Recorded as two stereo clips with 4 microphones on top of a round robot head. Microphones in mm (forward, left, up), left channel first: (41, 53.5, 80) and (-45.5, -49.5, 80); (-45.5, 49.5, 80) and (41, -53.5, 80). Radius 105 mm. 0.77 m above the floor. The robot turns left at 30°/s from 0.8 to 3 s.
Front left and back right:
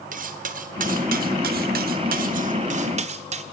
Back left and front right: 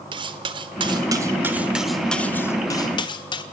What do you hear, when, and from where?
0.1 s cutlery clinking: 105° right, 1.3 m; by 3.4 s 170° right, 1.3 m